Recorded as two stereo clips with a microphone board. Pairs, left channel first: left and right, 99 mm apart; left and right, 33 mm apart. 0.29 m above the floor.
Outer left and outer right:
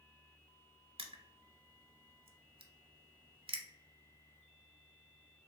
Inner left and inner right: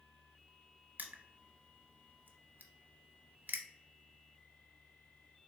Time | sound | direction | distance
1.0 | crushing | 65° right (ahead or behind) | 0.6 m